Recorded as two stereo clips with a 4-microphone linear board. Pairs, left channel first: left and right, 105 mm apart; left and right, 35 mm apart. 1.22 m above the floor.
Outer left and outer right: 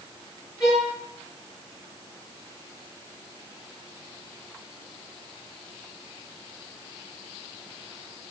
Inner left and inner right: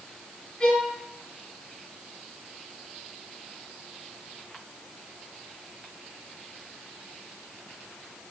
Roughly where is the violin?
Left.